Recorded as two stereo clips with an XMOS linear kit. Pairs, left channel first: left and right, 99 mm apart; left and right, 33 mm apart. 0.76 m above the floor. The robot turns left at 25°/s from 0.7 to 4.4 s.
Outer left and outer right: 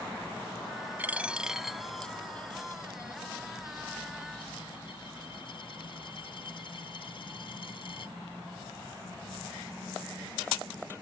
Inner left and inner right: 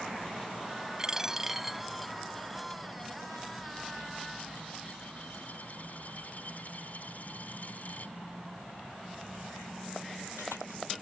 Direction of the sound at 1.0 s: 20° right (ahead or behind).